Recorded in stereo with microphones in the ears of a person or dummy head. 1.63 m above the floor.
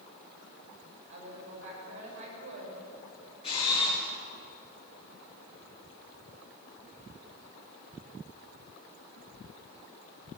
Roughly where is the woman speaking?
Right.